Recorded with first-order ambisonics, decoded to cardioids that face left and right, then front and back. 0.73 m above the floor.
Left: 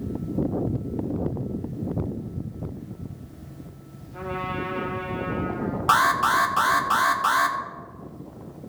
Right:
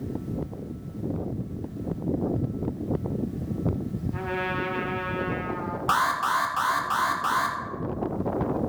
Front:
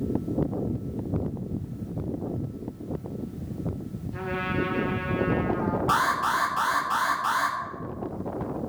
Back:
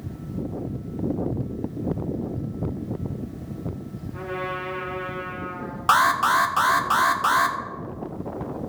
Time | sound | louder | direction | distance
4.1 | a trumpet | right 1 dB, even | 80° right | 2.5 m
5.9 | an alarm | left 4 dB, back 7 dB | 160° left | 1.1 m